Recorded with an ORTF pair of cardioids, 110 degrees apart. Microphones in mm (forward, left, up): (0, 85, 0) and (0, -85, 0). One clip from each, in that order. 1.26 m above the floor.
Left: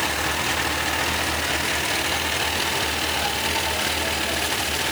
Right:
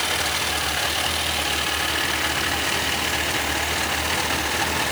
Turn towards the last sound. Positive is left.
No sound to turn to.